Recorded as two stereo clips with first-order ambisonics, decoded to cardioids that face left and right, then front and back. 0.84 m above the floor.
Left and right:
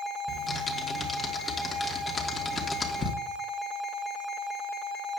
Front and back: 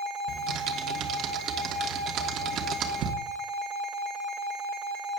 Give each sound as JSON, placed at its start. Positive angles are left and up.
{"t": 0.3, "sound": "typing on a keyboard", "azimuth_deg": 160, "distance_m": 1.2}